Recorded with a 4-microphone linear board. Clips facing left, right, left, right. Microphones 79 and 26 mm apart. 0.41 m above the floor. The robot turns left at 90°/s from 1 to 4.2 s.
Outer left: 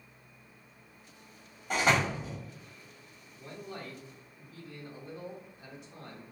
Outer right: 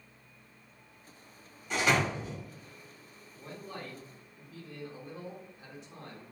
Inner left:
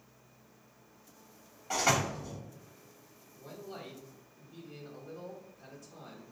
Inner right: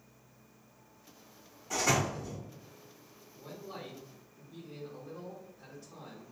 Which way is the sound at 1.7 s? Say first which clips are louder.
Outer left 1 dB, inner left 1 dB; 50° left (ahead or behind).